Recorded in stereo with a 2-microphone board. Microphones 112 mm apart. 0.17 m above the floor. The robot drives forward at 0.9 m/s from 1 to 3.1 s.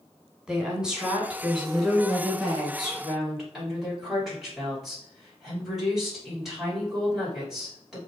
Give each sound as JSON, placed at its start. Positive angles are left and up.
{"t": 0.5, "sound": "a woman speaking", "side_deg": -5, "distance_m": 1.2}